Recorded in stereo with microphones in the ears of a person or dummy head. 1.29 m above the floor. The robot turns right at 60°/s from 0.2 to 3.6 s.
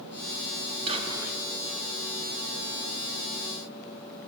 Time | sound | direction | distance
0.9 | whispering | 35° right | 1.7 m